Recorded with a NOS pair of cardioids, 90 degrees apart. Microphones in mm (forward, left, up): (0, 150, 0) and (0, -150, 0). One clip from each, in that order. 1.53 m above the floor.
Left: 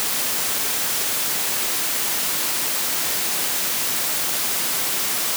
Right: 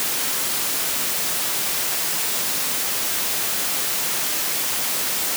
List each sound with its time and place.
Only background noise.